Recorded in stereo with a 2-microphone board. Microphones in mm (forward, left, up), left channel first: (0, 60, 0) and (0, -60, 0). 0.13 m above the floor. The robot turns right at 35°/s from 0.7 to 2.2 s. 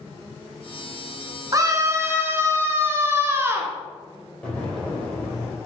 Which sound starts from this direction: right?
A scream, at 1.5 s.